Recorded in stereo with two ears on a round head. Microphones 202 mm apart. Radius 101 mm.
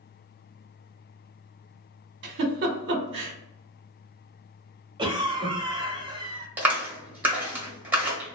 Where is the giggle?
50° right (ahead or behind), 0.8 m.